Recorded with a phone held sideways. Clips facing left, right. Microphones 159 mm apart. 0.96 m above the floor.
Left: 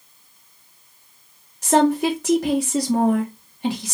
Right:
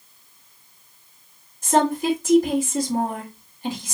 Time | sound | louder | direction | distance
1.6 | a woman speaking | left 3 dB | 65° left (ahead or behind) | 2 m